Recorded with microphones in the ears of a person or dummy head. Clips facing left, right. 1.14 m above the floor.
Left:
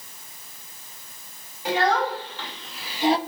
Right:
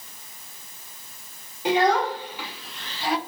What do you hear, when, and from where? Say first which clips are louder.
1.6 s a child speaking: right 2 dB; 20° right (ahead or behind), 2 m; by 3.2 s 35° left (ahead or behind), 0.6 m